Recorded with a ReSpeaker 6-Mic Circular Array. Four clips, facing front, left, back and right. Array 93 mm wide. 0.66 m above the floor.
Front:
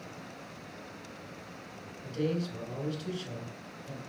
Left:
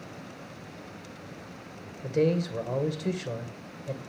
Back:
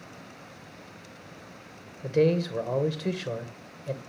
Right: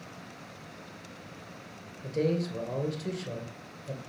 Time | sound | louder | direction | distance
2.0 | a man speaking | left 3 dB, back 9 dB | 165° left | 2.5 m